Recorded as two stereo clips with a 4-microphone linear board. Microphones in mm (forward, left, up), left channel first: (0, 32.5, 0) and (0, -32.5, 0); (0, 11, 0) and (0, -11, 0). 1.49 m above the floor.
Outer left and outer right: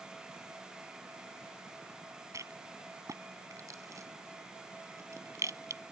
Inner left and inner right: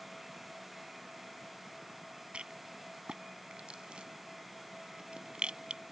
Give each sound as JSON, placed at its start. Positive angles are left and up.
{"t": 2.3, "sound": "a rattle", "side_deg": -55}